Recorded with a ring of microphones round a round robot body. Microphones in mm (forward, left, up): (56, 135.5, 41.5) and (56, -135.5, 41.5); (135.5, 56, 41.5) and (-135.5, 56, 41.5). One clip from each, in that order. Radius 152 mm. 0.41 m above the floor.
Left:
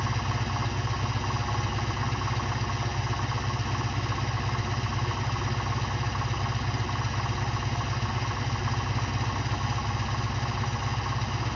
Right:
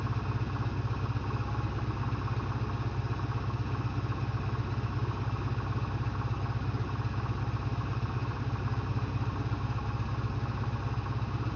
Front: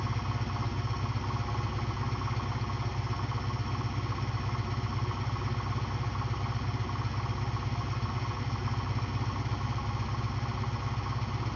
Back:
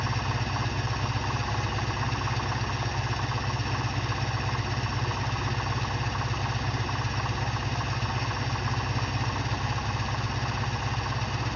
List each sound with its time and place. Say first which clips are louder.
0.0 s an engine running: left 7 dB, back 6 dB; 130° left, 0.7 m